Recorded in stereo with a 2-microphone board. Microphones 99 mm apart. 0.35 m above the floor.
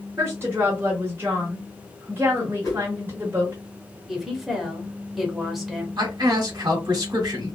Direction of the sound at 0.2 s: 25° right (ahead or behind).